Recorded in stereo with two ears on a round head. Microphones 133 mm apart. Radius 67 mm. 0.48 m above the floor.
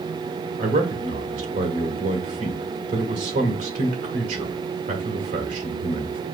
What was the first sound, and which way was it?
A man speaking, 55° right (ahead or behind).